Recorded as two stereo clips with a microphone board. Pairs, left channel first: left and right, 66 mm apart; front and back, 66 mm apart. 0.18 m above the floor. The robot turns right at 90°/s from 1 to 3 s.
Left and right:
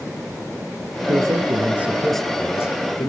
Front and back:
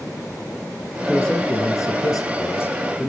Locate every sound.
1.1 s a man speaking: 90° right, 3 m; by 3.1 s 80° left, 3 m